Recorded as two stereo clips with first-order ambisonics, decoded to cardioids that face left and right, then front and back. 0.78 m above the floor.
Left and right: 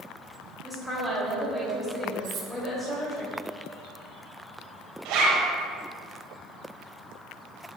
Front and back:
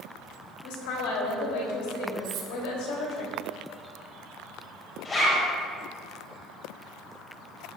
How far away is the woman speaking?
About 3.5 m.